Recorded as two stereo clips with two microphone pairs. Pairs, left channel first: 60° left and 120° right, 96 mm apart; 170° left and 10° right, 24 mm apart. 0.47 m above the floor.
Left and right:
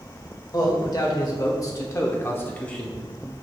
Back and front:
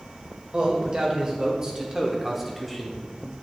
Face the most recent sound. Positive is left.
turn(degrees=155)